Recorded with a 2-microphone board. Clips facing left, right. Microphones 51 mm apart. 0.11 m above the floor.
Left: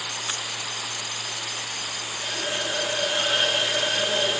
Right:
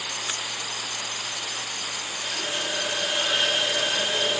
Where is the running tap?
20° left (ahead or behind), 3 m.